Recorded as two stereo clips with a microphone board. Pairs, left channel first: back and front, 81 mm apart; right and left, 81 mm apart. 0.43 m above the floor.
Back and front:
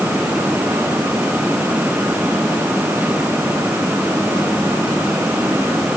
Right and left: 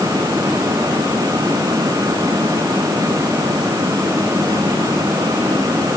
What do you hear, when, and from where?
Only background noise.